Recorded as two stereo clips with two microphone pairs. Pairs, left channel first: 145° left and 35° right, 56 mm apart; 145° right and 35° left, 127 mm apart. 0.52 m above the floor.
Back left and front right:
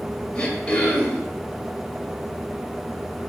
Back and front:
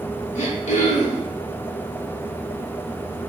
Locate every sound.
0.3 s throat clearing: 150° right, 0.9 m